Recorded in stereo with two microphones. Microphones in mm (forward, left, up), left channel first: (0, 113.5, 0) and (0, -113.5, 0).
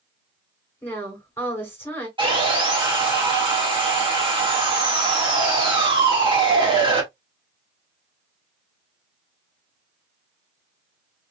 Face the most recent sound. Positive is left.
turn(degrees=-20)  # may be behind; listen again after turning